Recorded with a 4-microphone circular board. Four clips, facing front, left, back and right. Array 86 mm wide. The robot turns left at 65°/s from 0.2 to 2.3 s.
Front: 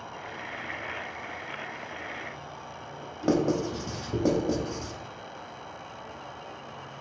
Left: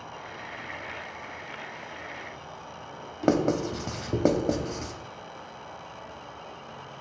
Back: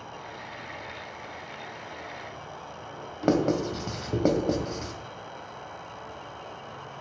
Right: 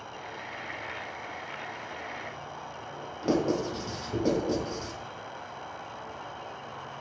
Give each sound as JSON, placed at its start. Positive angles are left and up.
{"t": 0.0, "sound": "an insect", "azimuth_deg": 25, "distance_m": 1.3}
{"t": 3.2, "sound": "writing", "azimuth_deg": 125, "distance_m": 0.6}